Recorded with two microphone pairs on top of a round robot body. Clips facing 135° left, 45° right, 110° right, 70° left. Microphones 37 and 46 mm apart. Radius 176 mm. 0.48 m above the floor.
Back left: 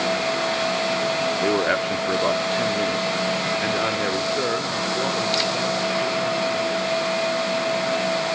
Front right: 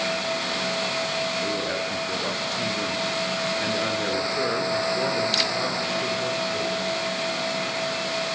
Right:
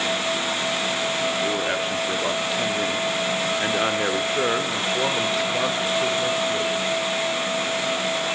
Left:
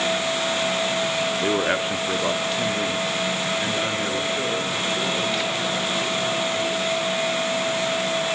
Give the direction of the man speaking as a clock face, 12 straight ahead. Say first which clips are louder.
Back left 6 dB, left 2 dB; 7 o'clock.